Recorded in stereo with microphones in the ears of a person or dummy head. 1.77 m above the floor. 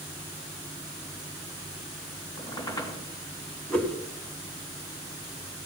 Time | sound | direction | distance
2.4 | a squeak | 25° left (ahead or behind) | 3.5 m
3.7 | a whoosh | 5° left (ahead or behind) | 1.5 m